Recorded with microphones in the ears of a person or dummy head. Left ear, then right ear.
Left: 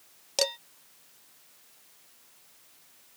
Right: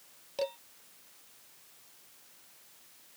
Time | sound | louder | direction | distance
0.4 | dishes clattering | left 7 dB | 60° left (ahead or behind) | ?